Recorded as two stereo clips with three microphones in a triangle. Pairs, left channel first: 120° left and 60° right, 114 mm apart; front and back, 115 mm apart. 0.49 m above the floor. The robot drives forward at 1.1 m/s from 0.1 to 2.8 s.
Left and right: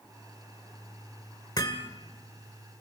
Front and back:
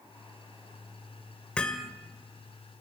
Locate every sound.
1.6 s hammering: 80° left, 1.9 m; by 1.9 s 90° left, 1.9 m